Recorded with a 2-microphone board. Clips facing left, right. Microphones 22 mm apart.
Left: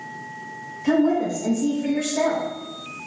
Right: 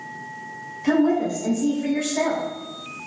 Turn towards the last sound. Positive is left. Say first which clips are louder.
# even
turn(degrees=-20)  # may be behind; listen again after turning